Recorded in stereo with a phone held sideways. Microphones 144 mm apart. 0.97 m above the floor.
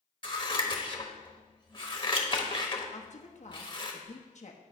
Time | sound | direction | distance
0.2 | scissors | 35° left (ahead or behind) | 1.1 m
2.9 | a woman speaking | 55° left (ahead or behind) | 1.0 m